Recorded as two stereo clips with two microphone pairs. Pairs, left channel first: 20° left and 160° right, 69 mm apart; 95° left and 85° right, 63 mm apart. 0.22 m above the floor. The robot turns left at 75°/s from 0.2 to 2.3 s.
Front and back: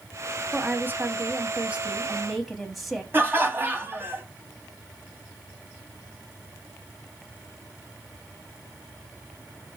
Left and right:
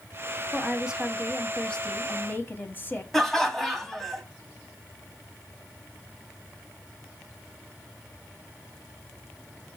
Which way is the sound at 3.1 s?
175° right.